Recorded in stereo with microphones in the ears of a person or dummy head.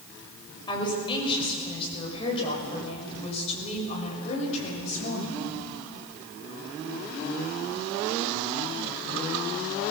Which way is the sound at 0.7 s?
25° left (ahead or behind).